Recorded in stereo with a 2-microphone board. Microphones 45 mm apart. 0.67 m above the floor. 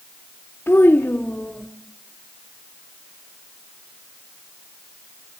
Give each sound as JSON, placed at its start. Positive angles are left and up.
{"t": 0.7, "sound": "a child speaking", "side_deg": 60, "distance_m": 1.2}